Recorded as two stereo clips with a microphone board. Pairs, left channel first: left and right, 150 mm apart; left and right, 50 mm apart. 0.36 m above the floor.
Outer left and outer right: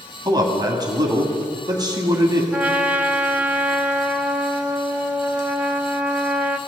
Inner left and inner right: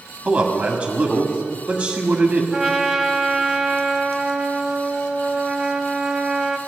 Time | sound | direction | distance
0.2 | a man speaking | 30° right (ahead or behind) | 1.9 m
2.5 | a trumpet | 10° right (ahead or behind) | 1.0 m